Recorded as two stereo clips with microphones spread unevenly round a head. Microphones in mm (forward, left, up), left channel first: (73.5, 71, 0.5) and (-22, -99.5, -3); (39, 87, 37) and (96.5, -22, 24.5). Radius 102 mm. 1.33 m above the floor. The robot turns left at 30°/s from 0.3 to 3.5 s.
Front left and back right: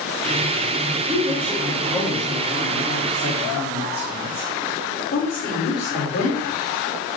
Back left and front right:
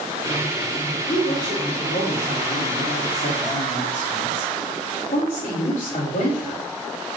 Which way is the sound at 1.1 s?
Straight behind.